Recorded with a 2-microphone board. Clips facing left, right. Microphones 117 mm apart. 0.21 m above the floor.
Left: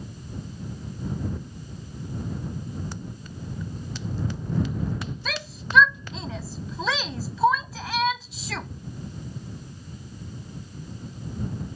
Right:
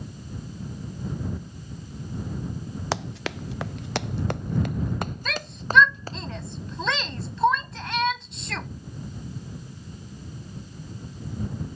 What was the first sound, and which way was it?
Running footsteps, 80° right.